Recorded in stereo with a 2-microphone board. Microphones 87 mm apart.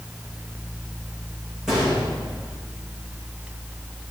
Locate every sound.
1.7 s a gunshot: 10° right (ahead or behind), 9.5 m